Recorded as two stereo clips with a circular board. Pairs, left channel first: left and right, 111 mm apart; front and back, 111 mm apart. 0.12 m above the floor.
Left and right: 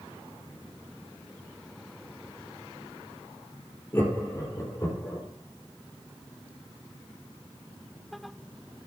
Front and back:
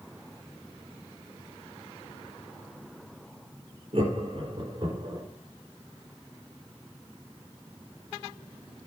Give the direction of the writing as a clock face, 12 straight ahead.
No writing in this recording.